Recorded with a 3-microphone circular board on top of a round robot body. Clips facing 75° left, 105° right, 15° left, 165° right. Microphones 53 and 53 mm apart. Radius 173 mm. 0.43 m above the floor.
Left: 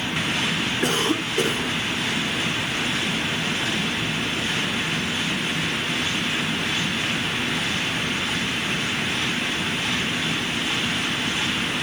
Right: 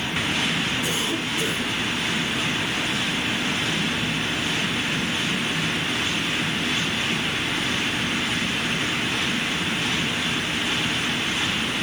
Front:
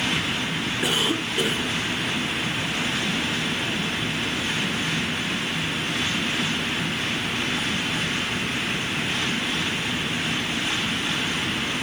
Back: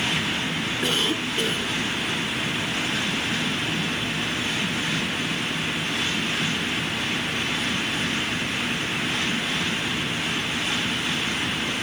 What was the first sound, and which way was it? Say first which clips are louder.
A cough: left 3 dB, front 1 dB; 95° left.